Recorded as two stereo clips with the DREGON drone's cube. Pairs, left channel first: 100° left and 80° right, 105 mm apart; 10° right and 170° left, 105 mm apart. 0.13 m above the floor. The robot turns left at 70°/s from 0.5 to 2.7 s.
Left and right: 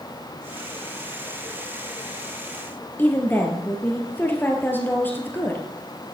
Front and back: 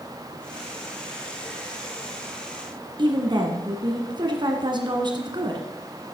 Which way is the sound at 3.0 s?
165° left.